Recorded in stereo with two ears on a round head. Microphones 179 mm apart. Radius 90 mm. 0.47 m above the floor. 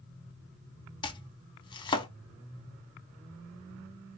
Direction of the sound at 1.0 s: 25° left (ahead or behind).